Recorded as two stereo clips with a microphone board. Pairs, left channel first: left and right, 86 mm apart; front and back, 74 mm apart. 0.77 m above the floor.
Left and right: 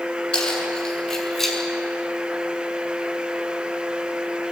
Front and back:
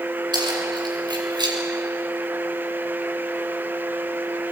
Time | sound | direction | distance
0.3 | keys jangling | 170° left | 7 m